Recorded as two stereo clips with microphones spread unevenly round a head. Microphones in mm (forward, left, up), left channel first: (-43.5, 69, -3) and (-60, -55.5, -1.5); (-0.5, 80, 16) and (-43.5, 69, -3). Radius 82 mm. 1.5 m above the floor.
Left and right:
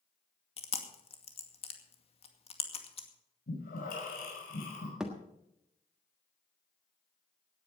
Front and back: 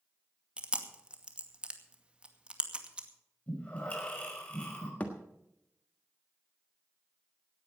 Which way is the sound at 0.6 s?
125° left.